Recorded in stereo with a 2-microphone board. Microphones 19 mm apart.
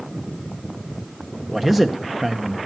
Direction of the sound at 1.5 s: 5° right (ahead or behind).